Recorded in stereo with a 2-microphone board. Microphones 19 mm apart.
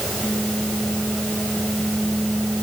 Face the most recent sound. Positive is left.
No sound to turn to.